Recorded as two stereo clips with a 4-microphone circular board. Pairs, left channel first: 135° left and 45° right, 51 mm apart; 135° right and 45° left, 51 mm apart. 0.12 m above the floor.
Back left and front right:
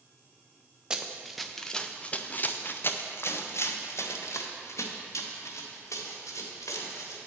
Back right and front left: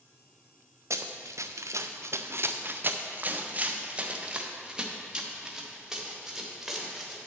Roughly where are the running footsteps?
Ahead left.